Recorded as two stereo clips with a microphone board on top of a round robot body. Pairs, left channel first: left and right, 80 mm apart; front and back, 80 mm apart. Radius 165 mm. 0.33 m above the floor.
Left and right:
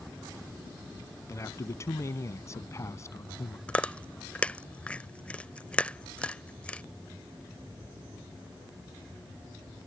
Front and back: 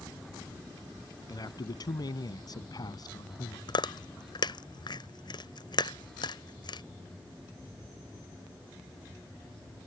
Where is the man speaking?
35° left.